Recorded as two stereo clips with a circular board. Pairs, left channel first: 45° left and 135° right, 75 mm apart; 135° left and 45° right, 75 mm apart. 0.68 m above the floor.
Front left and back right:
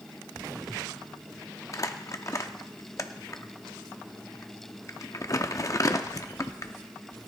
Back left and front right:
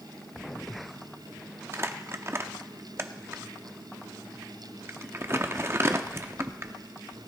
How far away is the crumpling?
About 0.6 m.